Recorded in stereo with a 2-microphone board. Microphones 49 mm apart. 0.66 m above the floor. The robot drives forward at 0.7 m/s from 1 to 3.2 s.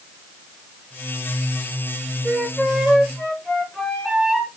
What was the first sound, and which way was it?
A flute, 5° left (ahead or behind).